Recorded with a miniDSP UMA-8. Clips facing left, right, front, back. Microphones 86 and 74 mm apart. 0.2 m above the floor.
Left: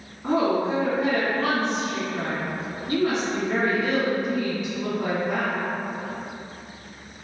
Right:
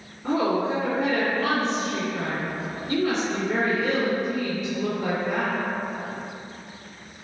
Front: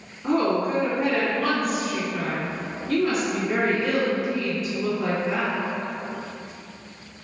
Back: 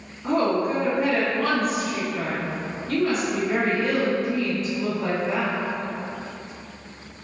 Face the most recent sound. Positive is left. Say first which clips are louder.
# left 1 dB, even
turn(degrees=85)